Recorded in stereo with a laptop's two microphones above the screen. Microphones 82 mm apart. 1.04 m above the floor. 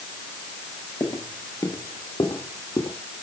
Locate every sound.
1.0 s footsteps: 40° left (ahead or behind), 1.4 m; by 3.0 s 45° left (ahead or behind), 2.5 m